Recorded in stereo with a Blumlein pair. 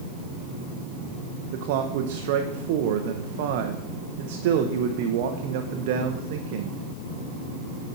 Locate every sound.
1.5 s a man speaking: 50° right, 0.5 m